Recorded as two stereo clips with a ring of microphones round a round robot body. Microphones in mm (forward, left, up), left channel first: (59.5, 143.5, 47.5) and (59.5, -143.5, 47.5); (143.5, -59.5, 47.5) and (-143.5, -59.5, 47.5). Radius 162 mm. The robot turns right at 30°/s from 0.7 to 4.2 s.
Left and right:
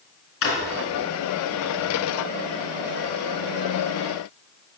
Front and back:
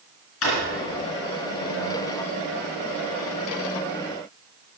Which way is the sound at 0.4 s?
50° left.